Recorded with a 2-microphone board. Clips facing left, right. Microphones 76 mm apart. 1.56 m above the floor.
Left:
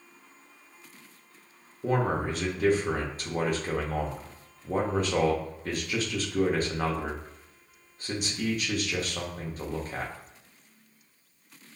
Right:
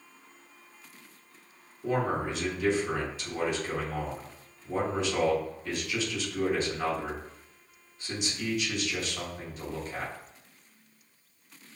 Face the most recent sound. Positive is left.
turn(degrees=45)  # may be behind; listen again after turning